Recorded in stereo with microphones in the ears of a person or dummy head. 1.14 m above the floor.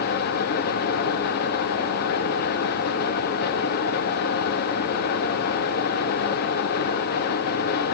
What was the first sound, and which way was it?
A fan, 60° left (ahead or behind).